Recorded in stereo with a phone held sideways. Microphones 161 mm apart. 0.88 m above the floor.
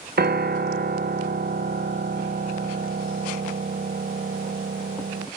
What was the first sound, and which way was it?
A piano, 85° right.